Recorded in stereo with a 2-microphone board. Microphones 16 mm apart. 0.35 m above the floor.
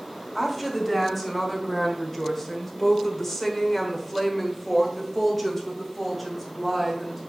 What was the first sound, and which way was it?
A woman speaking, 5° left (ahead or behind).